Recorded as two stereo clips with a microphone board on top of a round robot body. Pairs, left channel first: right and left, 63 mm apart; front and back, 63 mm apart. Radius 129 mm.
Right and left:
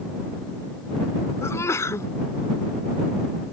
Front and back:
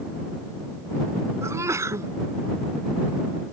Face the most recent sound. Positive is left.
turn(degrees=-135)